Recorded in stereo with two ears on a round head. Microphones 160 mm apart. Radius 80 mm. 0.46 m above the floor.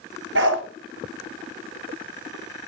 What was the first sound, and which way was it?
A dog barking, 75° right (ahead or behind).